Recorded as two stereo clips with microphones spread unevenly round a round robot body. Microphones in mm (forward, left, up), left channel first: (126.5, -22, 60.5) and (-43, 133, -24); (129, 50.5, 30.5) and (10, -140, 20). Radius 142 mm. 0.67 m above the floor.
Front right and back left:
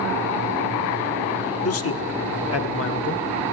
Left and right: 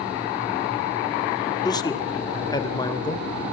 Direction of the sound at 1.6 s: 15° right.